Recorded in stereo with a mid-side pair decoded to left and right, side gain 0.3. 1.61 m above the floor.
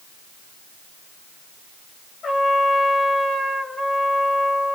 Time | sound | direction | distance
2.2 | a trumpet | 70° left | 2.0 m